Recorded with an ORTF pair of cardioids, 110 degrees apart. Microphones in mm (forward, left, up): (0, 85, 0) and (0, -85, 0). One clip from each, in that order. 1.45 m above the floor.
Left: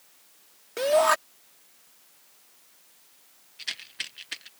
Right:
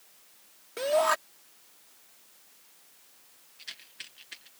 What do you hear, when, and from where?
0.8 s a shout: 25° left
3.6 s a rattle: 50° left